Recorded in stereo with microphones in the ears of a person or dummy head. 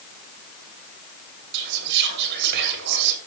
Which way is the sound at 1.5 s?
50° right (ahead or behind).